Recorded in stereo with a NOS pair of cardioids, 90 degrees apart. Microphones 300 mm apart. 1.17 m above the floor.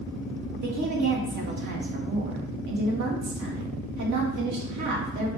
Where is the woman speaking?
70° right, 1.4 m.